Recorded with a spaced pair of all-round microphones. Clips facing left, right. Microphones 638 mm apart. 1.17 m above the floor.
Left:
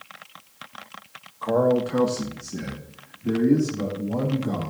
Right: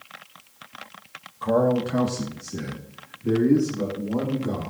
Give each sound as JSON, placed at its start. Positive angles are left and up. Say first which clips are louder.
{"t": 1.4, "sound": "a man speaking", "louder": "left 1 dB", "side_deg": -45, "distance_m": 1.2}